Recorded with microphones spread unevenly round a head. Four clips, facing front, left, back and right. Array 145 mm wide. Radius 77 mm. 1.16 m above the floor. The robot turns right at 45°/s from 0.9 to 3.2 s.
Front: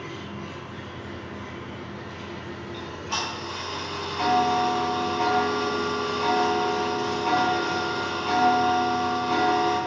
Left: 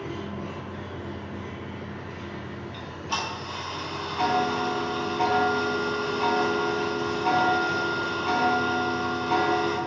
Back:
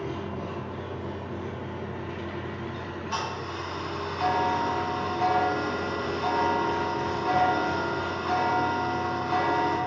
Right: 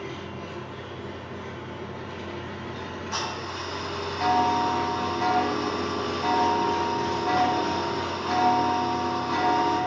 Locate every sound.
0.0 s an engine running: 160° left, 1.2 m; by 9.9 s 100° right, 1.2 m
2.7 s ticking: 60° left, 3 m; by 9.8 s 80° left, 3 m